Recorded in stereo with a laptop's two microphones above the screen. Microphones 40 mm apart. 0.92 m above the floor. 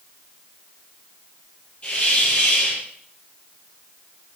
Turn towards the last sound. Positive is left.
turn(degrees=35)  # may be behind; listen again after turning